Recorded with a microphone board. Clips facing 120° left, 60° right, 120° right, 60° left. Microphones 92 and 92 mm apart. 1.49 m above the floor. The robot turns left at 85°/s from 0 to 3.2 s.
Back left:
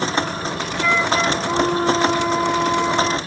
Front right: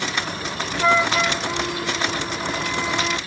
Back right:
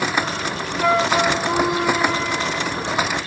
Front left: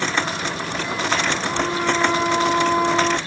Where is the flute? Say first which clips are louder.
Even, back right 7 dB; 120° right; by 3.2 s 40° left.